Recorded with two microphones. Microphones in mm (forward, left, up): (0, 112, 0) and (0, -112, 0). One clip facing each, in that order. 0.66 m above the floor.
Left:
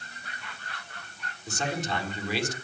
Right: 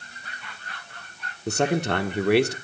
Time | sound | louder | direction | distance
1.5 | a man speaking | right 9 dB | 65° right (ahead or behind) | 1.6 m